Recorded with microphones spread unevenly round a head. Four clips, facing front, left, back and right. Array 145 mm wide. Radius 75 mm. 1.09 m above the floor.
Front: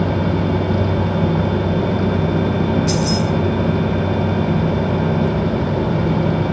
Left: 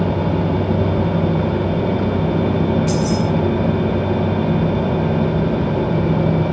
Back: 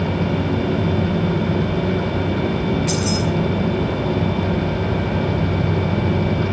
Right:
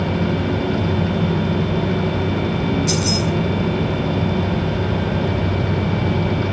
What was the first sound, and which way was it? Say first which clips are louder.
Keys jangling: left 3 dB, front 3 dB; 135° left.